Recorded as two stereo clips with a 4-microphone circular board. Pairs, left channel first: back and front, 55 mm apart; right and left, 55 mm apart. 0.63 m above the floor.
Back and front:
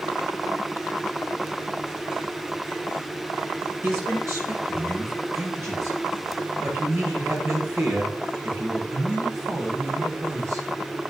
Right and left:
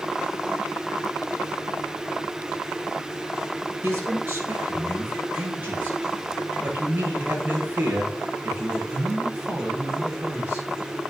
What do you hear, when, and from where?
3.8 s a man speaking: 35° left, 10 m; by 10.7 s 25° left, 14.5 m